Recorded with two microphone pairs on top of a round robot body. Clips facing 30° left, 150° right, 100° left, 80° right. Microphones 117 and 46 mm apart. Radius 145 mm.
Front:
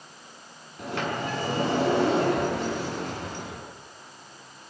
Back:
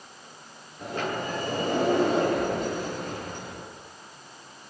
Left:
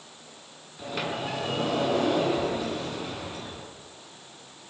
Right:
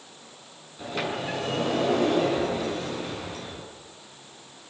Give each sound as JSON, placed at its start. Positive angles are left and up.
{"t": 0.8, "sound": "a sliding door", "azimuth_deg": 10, "distance_m": 6.5}